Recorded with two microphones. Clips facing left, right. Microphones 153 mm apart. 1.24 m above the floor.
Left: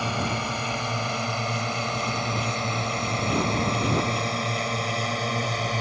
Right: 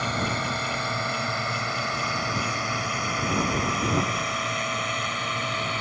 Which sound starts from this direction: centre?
A drone, at 0.0 s.